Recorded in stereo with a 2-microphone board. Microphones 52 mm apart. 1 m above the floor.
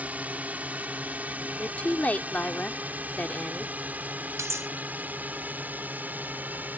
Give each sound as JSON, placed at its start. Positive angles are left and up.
{"t": 0.0, "sound": "a drone", "side_deg": -30}
{"t": 1.6, "sound": "a woman speaking", "side_deg": 30}
{"t": 4.4, "sound": "cutlery clinking", "side_deg": -75}